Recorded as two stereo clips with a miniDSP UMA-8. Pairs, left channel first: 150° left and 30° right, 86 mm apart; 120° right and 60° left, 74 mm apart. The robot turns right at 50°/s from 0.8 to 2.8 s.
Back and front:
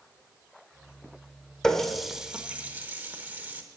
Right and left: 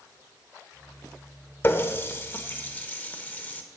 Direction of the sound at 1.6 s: 135° right.